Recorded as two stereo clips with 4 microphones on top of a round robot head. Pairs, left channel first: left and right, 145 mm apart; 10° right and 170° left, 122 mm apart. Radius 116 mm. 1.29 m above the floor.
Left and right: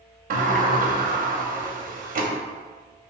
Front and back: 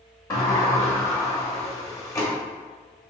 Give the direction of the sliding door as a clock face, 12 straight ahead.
3 o'clock.